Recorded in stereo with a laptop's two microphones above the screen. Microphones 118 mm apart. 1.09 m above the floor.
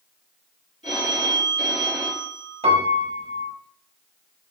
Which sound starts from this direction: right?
A piano, at 2.6 s.